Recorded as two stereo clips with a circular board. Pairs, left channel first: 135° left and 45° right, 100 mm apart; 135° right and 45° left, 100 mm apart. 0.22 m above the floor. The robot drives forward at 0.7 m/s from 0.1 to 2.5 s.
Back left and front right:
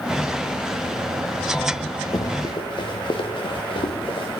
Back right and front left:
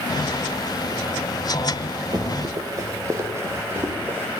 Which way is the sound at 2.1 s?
90° left.